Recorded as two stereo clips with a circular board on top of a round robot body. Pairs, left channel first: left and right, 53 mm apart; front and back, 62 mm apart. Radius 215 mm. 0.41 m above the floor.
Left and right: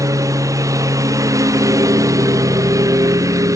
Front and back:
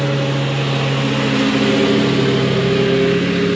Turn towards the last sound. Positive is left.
turn(degrees=-90)